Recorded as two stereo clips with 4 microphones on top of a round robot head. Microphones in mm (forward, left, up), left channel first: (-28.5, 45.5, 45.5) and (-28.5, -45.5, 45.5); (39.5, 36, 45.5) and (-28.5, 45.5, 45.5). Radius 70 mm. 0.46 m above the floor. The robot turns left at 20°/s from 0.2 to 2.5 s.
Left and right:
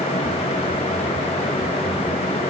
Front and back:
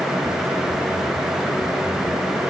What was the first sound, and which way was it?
Only background noise.